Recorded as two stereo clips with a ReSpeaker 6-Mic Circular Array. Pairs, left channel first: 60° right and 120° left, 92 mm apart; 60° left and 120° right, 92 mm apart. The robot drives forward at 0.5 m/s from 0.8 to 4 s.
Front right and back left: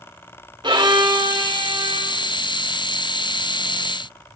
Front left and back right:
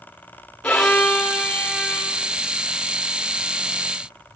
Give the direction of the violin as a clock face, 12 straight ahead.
7 o'clock.